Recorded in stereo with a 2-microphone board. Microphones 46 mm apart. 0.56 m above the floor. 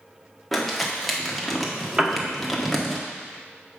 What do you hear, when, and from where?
0.5 s crumpling: centre (ahead or behind), 1.2 m
2.0 s a piano: 15° right (ahead or behind), 0.8 m